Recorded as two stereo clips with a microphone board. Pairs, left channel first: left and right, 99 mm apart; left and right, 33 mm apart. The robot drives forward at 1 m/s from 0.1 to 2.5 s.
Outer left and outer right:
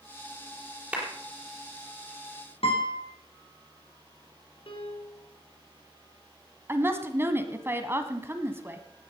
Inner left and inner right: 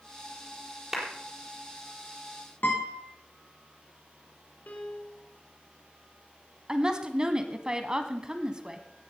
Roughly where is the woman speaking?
Right.